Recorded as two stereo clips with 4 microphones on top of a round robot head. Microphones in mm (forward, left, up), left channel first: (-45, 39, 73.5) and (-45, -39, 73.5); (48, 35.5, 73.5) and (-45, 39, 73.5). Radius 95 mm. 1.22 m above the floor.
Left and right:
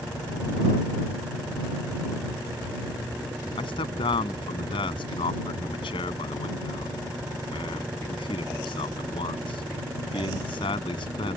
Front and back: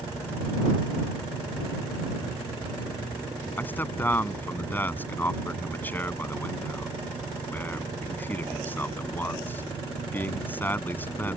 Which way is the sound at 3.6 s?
70° left.